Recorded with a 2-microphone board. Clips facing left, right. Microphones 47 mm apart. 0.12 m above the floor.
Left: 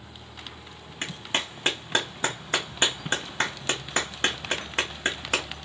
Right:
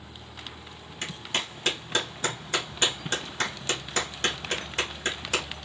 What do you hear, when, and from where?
1.0 s a clap: 30° left (ahead or behind), 1.0 m